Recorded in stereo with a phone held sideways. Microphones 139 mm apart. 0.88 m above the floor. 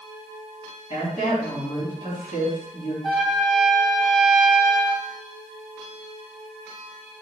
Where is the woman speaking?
70° left (ahead or behind), 6 m.